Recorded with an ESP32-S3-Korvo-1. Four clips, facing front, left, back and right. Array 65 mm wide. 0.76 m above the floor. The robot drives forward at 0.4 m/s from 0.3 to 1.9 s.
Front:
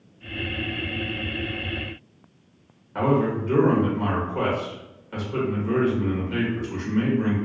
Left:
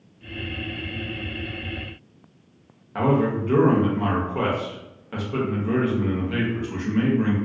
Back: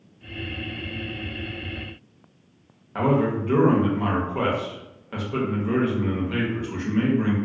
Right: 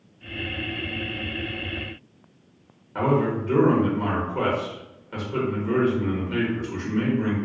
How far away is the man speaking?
About 1.1 m.